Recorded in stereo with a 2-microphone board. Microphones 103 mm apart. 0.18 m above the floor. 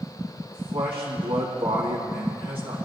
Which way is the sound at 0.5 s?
65° right (ahead or behind).